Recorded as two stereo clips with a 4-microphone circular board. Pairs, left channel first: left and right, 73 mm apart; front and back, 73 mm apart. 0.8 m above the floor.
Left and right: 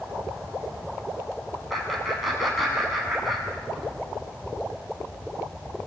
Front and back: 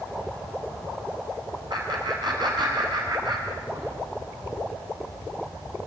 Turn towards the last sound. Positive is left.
turn(degrees=180)